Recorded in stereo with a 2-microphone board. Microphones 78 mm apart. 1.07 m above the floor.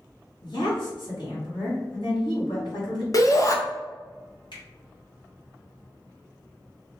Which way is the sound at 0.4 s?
70° left (ahead or behind).